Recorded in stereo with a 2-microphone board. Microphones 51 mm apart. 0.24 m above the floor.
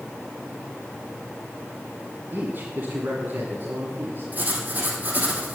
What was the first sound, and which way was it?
A man speaking, 40° right (ahead or behind).